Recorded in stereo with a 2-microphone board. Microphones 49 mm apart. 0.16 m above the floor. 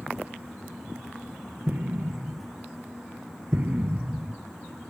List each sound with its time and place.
1.7 s an explosion: 40° right (ahead or behind), 0.5 m